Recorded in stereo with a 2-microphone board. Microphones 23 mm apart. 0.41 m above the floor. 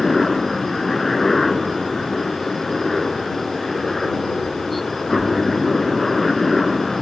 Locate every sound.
0.0 s a helicopter: 5° left (ahead or behind)